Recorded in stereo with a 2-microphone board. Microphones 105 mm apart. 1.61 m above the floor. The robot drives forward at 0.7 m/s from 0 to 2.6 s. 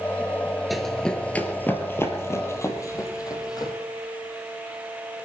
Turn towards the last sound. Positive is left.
turn(degrees=40)  # may be behind; listen again after turning